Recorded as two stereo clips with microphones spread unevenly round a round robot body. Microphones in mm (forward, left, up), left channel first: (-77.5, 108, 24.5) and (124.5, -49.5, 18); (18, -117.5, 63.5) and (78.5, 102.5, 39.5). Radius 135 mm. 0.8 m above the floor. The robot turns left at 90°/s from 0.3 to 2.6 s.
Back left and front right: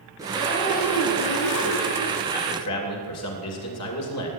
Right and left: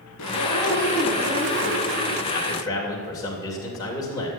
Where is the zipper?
115° right, 2 m; by 2.2 s 70° left, 2 m.